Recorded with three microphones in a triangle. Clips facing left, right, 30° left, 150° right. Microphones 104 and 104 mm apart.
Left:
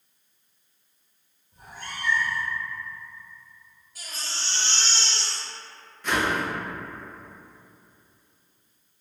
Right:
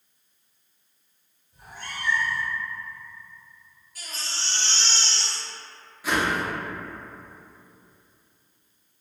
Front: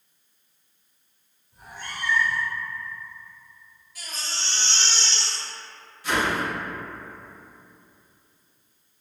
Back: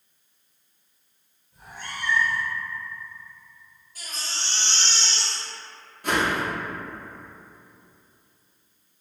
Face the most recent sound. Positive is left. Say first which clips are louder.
# even, back 1 dB
turn(degrees=-170)